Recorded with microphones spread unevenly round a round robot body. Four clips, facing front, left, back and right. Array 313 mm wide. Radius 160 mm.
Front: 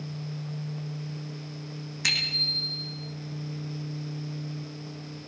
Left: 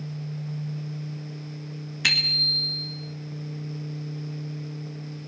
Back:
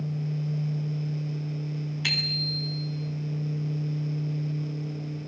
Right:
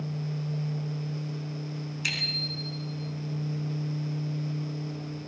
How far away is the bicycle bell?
About 3 m.